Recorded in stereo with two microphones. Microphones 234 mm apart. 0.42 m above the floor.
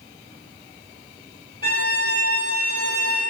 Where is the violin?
40° right (ahead or behind), 2.0 m.